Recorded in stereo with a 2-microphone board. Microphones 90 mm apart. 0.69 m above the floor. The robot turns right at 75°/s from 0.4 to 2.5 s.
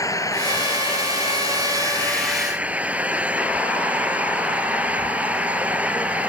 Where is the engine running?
40° left; by 6.3 s 165° right.